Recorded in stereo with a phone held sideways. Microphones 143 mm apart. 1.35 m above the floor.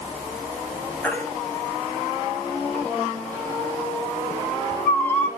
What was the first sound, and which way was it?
A baby crying, 10° left (ahead or behind).